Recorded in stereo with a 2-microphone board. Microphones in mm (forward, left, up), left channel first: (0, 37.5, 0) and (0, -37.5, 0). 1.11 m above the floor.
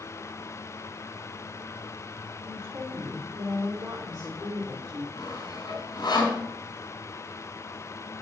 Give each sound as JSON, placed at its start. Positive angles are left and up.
{"t": 2.5, "sound": "a woman speaking", "side_deg": -60, "distance_m": 3.0}
{"t": 5.2, "sound": "sawing", "side_deg": 70, "distance_m": 5.0}